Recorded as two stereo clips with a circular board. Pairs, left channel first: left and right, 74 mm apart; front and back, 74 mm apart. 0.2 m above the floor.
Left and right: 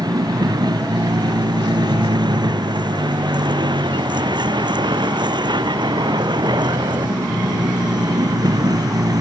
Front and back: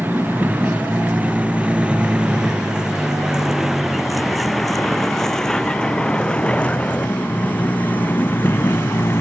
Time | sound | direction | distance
0.0 | a vehicle | 115° right | ?